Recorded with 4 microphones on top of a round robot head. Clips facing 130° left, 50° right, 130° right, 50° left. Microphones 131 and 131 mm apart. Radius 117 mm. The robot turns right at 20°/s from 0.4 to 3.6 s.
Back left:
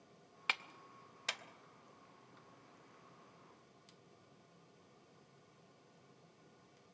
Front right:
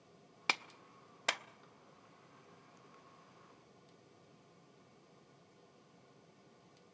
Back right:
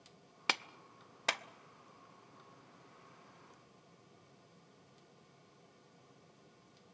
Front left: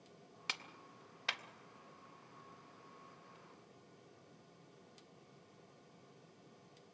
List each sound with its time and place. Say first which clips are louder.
0.5 s a clap: front right 4 dB, back right 11 dB; 100° right, 0.7 m; by 1.4 s 85° right, 0.7 m